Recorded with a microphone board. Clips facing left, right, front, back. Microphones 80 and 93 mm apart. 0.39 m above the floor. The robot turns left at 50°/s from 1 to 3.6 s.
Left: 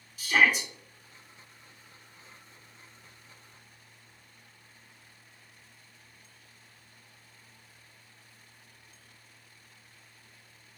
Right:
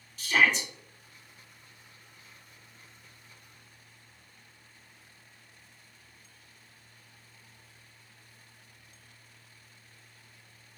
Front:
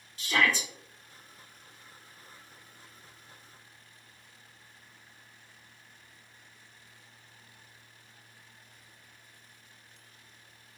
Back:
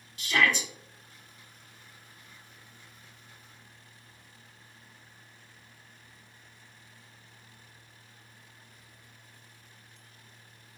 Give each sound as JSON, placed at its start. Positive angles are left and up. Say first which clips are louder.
{"t": 0.2, "sound": "a shout", "louder": "left 1 dB, back 1 dB", "azimuth_deg": 10, "distance_m": 1.3}